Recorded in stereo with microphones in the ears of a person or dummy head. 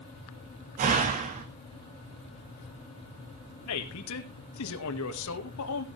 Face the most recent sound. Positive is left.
turn(degrees=70)  # may be behind; listen again after turning